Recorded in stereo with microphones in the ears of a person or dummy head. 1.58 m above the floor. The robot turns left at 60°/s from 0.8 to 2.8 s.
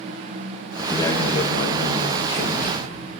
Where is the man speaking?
165° left, 1.5 m; by 3.2 s 45° left, 1.5 m.